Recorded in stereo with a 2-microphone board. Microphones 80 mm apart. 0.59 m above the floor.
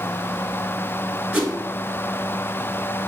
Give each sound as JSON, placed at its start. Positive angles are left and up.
{"t": 1.3, "sound": "a whoosh", "side_deg": -20, "distance_m": 0.9}